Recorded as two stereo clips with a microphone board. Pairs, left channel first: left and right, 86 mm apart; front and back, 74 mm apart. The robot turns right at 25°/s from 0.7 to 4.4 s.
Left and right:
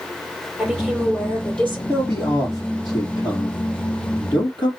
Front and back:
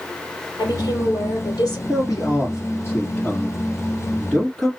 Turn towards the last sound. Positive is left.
turn(degrees=90)